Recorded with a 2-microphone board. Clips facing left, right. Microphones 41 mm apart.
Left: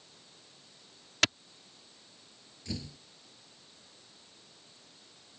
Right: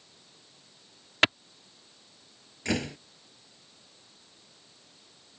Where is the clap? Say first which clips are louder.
Right 5 dB; 30° right (ahead or behind).